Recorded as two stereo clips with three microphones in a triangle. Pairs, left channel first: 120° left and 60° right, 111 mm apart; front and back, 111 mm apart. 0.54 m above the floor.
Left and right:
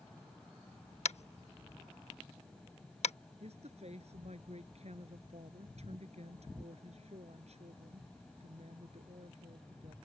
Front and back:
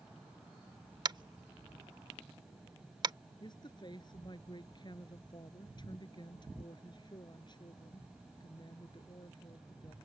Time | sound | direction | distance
1.1 | tapping | 130° left | ?
3.4 | a woman speaking | 45° right | ?